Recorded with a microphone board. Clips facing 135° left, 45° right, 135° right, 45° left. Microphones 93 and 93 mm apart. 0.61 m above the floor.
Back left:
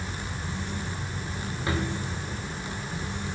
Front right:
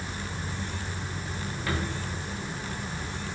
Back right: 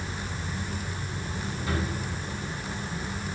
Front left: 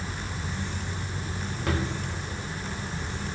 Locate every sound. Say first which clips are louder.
1.7 s a drawer: back left 3 dB, front left 2 dB; 65° left, 1.5 m